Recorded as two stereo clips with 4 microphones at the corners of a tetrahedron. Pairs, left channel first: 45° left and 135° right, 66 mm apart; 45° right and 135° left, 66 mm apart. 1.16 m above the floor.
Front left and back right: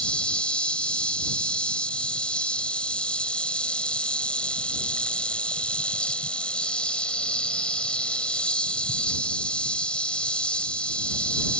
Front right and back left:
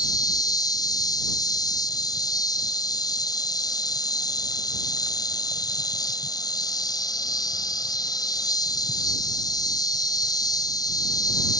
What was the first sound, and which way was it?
An insect, 30° right.